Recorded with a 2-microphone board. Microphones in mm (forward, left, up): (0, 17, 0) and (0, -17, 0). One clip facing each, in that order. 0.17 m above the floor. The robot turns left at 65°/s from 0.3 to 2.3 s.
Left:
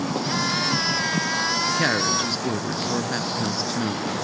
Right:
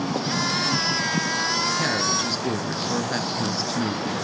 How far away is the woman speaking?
About 2 m.